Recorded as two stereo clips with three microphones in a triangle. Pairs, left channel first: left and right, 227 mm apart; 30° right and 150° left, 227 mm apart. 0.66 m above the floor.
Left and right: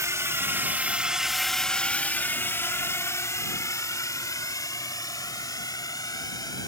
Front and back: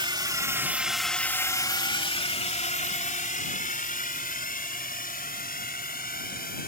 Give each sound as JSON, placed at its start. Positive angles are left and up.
{"t": 0.0, "sound": "a drone", "azimuth_deg": -155}